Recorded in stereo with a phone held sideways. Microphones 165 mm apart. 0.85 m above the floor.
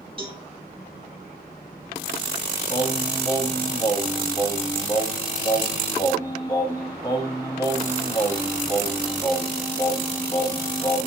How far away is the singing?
About 0.8 m.